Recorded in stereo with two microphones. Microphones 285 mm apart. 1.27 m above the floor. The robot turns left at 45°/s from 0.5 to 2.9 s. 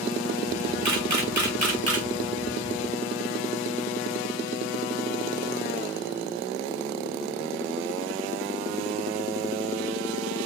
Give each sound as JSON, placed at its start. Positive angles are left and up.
{"t": 0.8, "sound": "a camera shutter", "side_deg": -75, "distance_m": 1.0}